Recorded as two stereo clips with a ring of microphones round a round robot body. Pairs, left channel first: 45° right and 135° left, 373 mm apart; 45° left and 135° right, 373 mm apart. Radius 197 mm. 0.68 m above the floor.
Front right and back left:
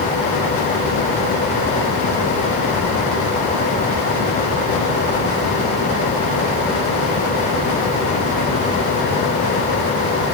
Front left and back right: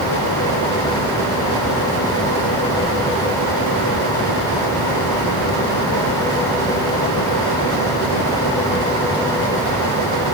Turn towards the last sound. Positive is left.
No sound to turn to.